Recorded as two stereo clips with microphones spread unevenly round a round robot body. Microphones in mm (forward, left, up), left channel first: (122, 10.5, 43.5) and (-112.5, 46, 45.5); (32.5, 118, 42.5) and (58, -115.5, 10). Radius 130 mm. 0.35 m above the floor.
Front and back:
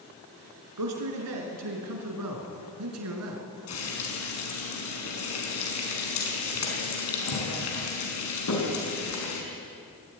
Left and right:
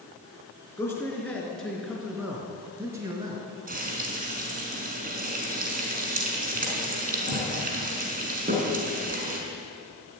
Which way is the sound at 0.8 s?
175° left.